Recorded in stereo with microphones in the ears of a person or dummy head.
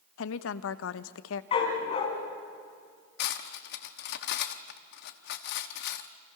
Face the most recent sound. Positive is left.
turn(degrees=60)  # may be behind; listen again after turning